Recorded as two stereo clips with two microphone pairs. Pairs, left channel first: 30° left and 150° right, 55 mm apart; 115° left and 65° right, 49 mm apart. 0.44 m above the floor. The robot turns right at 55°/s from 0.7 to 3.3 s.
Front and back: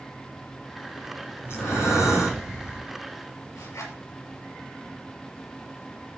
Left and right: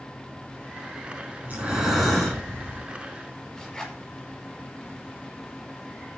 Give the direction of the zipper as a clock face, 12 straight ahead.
11 o'clock.